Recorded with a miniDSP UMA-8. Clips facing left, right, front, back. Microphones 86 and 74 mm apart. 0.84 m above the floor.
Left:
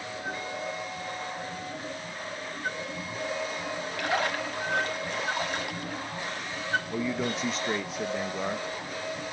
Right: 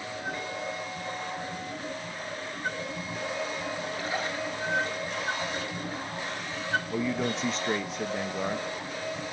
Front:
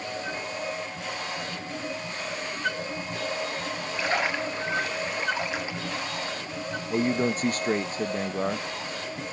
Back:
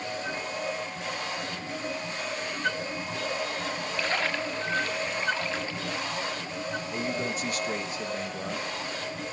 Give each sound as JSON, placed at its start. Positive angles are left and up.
{"t": 4.0, "sound": "a splash", "azimuth_deg": 75, "distance_m": 1.5}
{"t": 6.9, "sound": "a man speaking", "azimuth_deg": 0, "distance_m": 0.6}